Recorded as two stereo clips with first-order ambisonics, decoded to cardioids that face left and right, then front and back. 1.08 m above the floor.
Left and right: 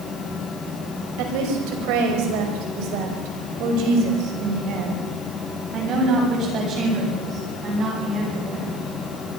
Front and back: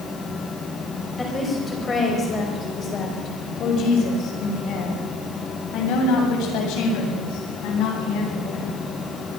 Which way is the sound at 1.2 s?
85° right.